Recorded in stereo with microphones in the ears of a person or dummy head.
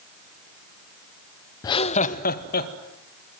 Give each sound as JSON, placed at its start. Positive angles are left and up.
{"t": 1.6, "sound": "laughter", "side_deg": 30, "distance_m": 0.7}